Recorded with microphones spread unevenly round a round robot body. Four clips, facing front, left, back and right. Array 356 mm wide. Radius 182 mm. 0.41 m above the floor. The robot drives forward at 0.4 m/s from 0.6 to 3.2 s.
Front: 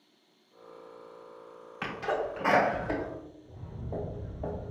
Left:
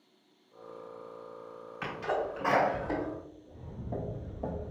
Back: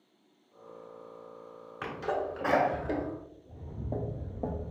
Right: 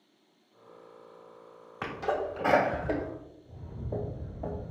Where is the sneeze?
100° right, 1.1 m; by 3.0 s 130° right, 1.3 m.